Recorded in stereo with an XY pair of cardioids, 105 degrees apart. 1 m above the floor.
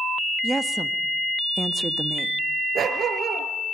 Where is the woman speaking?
15° right, 1.4 m.